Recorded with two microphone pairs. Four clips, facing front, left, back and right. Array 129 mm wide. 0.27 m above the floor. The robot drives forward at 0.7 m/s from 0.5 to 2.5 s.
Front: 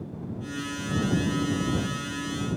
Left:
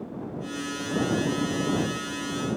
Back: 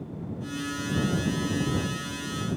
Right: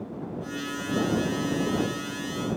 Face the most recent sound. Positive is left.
No sound to turn to.